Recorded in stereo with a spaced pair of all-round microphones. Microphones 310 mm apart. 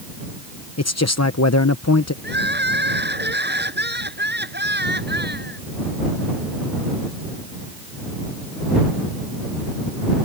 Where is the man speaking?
55° left (ahead or behind).